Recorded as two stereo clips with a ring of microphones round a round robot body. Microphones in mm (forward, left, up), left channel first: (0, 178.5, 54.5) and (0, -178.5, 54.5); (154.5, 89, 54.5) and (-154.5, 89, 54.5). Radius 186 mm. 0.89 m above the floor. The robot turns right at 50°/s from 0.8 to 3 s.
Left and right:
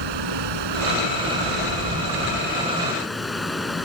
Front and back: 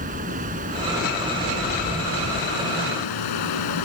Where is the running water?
110° right; by 3.9 s straight ahead.